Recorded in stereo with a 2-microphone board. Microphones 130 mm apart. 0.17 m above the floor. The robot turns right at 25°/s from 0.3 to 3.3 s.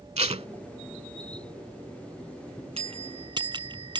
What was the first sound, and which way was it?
Tape being pulled, 55° right (ahead or behind).